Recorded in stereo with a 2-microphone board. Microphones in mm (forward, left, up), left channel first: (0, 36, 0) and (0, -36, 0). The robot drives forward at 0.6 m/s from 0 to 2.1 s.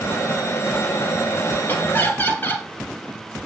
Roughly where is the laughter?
Left.